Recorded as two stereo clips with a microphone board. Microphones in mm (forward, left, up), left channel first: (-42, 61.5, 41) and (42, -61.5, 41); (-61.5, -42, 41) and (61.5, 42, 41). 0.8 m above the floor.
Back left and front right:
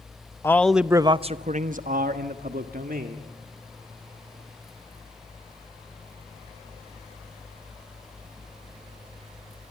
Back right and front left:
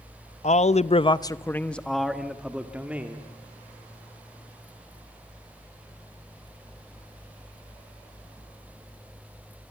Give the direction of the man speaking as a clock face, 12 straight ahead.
6 o'clock.